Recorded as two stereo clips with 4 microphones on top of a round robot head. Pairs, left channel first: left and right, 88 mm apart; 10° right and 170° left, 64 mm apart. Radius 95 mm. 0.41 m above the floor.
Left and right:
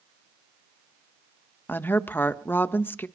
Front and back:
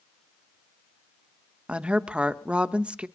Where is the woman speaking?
125° left, 1.2 m.